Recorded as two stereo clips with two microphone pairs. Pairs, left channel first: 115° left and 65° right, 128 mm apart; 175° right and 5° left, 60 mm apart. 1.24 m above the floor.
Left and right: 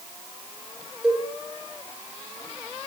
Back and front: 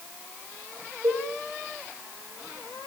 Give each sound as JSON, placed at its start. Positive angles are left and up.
{"t": 1.0, "sound": "a cowbell", "azimuth_deg": 20, "distance_m": 5.5}